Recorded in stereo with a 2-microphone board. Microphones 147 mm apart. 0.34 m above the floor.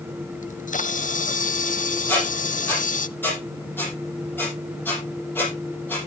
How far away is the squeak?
About 6 m.